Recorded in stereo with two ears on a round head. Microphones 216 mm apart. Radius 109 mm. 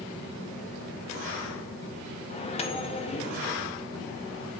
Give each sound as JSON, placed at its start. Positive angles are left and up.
{"t": 2.3, "sound": "a microwave", "side_deg": 25, "distance_m": 0.7}